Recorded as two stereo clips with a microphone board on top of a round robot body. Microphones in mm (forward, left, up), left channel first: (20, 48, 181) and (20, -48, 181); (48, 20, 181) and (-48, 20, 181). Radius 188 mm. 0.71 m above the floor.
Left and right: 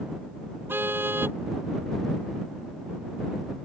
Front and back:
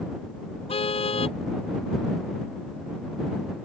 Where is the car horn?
20° right.